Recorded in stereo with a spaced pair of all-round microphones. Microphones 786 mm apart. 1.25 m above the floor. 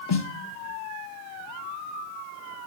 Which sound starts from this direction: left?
A snare drum, at 0.1 s.